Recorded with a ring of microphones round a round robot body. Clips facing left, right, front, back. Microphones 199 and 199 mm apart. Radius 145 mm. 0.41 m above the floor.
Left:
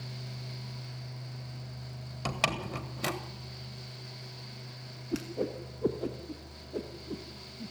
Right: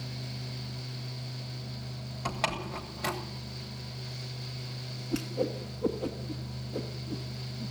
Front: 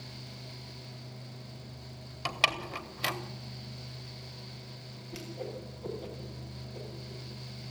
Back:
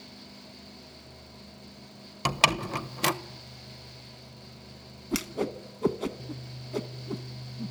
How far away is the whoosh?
About 1.1 m.